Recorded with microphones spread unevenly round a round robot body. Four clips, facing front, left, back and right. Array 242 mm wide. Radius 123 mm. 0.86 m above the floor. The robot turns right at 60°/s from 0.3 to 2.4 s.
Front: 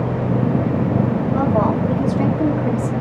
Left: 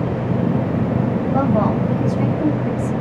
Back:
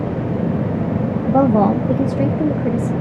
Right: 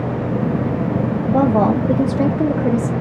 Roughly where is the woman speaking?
Behind.